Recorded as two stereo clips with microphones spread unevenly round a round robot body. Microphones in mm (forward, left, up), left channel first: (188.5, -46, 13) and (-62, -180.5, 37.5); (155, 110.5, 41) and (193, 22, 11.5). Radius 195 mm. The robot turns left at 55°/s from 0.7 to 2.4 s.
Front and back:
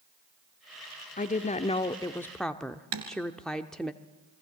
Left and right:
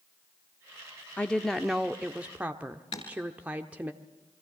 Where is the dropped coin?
I don't hear a dropped coin.